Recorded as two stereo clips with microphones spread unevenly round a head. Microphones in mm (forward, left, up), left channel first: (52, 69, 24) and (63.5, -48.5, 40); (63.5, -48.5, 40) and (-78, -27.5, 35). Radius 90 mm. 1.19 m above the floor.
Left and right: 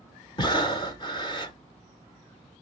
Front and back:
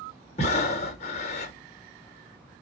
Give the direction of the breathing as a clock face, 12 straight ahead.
11 o'clock.